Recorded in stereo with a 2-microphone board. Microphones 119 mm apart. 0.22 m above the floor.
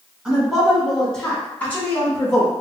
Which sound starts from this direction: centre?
A woman speaking, at 0.2 s.